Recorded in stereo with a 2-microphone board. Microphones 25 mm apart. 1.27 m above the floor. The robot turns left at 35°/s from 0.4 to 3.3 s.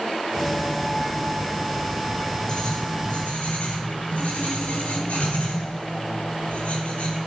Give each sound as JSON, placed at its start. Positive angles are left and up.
{"t": 2.5, "sound": "writing", "side_deg": 50, "distance_m": 4.0}